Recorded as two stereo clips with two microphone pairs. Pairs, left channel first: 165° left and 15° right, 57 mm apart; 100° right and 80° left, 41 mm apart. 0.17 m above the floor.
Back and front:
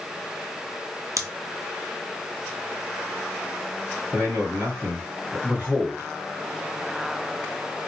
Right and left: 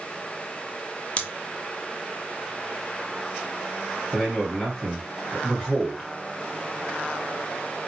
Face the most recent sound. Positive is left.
turn(degrees=-5)